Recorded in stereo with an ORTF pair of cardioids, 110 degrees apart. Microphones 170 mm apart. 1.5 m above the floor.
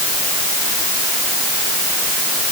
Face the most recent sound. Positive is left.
No sound to turn to.